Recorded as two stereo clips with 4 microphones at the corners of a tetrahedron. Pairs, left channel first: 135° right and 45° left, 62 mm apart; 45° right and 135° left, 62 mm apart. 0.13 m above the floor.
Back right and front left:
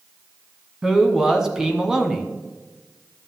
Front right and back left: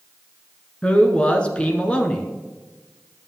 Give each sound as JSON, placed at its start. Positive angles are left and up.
{"t": 0.8, "sound": "a man speaking", "azimuth_deg": -15, "distance_m": 1.1}